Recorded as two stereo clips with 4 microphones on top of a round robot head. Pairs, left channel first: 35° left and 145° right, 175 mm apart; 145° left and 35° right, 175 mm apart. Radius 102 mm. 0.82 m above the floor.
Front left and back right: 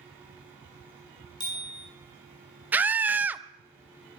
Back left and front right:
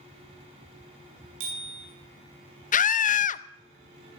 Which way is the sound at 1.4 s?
30° right.